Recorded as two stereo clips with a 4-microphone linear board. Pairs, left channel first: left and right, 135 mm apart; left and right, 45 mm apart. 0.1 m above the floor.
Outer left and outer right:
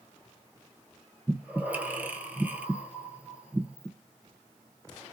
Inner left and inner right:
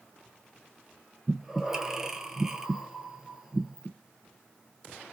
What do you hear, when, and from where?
1.3 s breathing: 10° right (ahead or behind), 0.6 m